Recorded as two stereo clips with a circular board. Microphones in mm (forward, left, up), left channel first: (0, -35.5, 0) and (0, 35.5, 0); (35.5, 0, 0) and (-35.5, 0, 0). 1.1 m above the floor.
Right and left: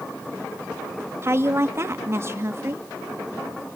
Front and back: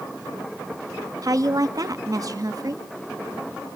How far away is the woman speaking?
About 1.4 m.